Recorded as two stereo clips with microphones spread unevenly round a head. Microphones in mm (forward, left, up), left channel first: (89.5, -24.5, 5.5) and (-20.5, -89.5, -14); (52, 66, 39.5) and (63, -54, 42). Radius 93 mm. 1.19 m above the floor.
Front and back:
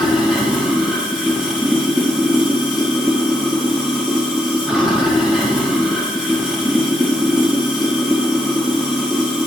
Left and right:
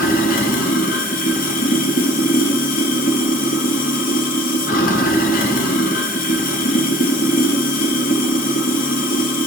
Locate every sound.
0.0 s running water: 120° left, 1.6 m